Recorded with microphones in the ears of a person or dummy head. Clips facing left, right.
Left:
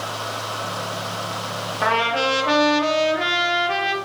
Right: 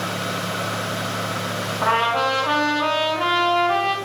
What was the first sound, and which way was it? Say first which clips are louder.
A trumpet: left 1 dB; 30° left (ahead or behind).